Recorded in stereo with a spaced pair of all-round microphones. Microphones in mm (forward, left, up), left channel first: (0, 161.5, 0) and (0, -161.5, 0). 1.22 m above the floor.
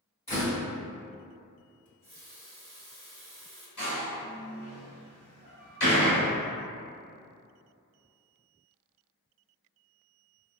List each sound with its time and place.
0.3 s a door slam: 20° left (ahead or behind), 2.0 m
1.9 s a running tap: 70° right (ahead or behind), 1.3 m
3.8 s a door slam: 70° left (ahead or behind), 1.9 m